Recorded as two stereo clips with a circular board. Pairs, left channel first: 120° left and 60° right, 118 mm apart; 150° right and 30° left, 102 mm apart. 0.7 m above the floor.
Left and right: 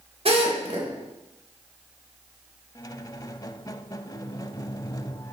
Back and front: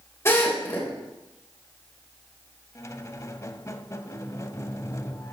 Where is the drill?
90° right, 3.5 m.